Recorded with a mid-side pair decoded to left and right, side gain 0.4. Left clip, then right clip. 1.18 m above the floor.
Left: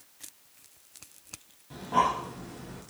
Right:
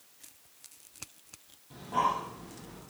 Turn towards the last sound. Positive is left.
turn(degrees=40)